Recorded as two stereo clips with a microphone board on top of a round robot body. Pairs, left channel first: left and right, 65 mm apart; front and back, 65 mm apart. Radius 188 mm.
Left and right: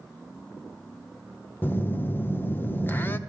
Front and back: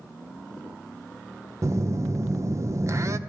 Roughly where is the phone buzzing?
Behind left.